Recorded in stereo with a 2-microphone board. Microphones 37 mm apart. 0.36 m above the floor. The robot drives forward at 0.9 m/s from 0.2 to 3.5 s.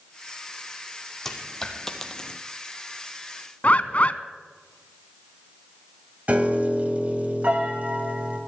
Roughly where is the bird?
Left.